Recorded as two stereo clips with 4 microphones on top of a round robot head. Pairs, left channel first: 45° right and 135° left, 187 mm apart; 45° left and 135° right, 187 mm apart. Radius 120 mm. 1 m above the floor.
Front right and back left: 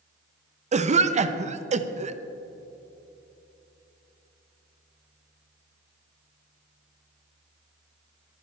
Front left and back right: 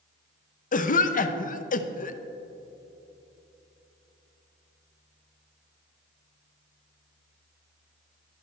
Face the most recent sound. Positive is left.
turn(degrees=85)